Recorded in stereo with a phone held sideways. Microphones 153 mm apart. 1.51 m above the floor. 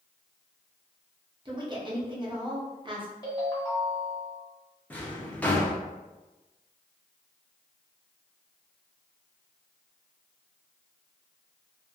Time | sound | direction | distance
1.4 | a woman speaking | 30° right (ahead or behind) | 0.8 m
3.2 | a ringtone | 25° left (ahead or behind) | 0.9 m
4.9 | a drawer | 10° left (ahead or behind) | 0.6 m